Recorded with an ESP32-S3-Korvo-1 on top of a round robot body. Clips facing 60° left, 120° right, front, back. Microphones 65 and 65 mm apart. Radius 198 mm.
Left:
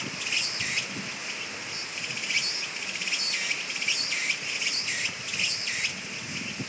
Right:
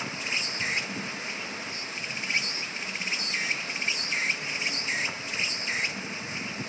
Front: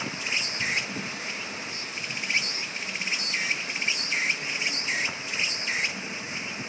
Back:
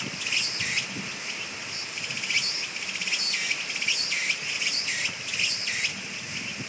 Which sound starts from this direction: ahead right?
An insect, at 0.0 s.